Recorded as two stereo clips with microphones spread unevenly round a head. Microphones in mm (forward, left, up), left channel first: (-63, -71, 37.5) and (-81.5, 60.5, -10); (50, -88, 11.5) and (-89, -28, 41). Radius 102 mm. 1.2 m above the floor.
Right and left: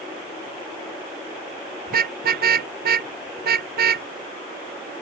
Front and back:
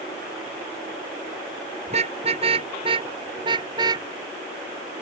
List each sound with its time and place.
1.9 s a car horn: 95° left; by 4.1 s 85° left